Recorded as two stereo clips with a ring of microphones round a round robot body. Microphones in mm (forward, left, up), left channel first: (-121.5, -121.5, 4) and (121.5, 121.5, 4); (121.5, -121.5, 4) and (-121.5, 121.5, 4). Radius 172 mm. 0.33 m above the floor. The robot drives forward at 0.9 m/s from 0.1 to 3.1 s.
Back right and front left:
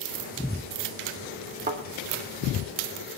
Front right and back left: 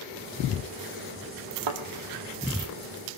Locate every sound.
1.7 s a thud: 110° left, 1.8 m; by 1.8 s 115° left, 1.8 m